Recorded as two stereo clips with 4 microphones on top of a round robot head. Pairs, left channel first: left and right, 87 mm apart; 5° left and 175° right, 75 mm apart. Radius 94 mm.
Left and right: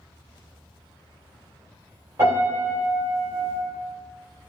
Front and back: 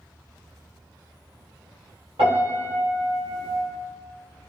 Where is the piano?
160° right, 1.9 m.